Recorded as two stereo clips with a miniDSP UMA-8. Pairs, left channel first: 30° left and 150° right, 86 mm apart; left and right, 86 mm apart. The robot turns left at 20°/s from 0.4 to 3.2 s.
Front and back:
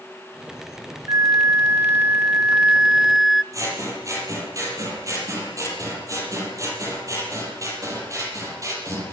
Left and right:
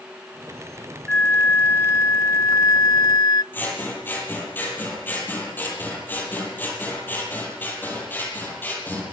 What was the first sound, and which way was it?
A flute, 165° left.